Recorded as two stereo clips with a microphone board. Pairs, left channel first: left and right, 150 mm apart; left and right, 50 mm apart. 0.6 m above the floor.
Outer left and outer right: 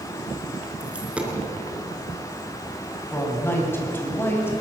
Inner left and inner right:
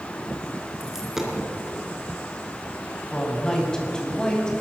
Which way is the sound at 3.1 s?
15° left (ahead or behind).